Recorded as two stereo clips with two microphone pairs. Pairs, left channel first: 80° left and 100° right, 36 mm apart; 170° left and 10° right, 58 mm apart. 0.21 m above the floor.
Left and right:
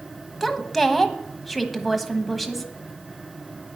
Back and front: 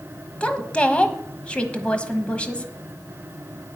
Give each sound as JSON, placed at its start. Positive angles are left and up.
{"t": 0.4, "sound": "a woman speaking", "azimuth_deg": 165, "distance_m": 1.0}